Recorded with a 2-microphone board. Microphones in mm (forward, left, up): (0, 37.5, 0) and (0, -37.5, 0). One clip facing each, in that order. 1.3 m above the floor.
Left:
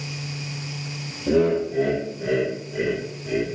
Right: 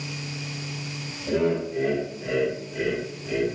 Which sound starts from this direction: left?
Laughter, at 1.3 s.